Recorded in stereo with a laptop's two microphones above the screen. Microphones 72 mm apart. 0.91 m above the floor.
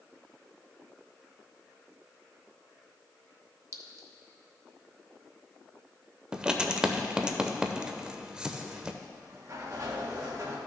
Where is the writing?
10° right (ahead or behind), 0.7 m.